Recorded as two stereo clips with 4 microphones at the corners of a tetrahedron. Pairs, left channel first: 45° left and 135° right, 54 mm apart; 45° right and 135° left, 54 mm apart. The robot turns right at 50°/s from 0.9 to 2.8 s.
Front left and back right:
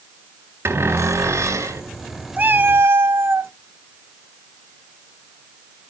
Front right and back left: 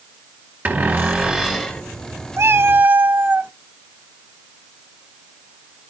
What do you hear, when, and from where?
0.7 s a cupboard door: 170° right, 3.5 m; by 1.8 s 125° right, 3.5 m
2.4 s a cat meowing: 165° left, 0.5 m; by 3.5 s 170° right, 0.5 m